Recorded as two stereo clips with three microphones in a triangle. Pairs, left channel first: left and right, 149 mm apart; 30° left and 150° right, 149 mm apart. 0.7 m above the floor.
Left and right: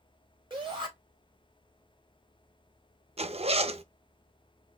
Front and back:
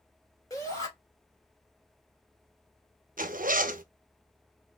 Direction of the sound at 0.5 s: 40° right.